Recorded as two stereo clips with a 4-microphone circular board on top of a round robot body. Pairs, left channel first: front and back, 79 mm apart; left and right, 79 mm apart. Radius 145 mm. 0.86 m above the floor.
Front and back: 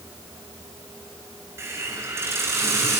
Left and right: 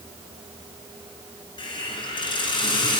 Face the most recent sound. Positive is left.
turn(degrees=120)